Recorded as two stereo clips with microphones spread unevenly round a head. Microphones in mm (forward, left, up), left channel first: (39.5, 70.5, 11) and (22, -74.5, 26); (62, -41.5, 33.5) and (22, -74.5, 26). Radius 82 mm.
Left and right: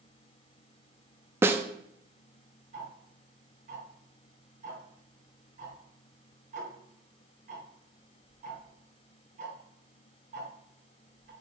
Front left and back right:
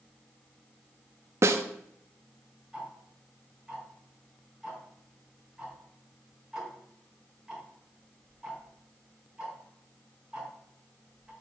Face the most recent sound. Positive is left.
turn(degrees=-60)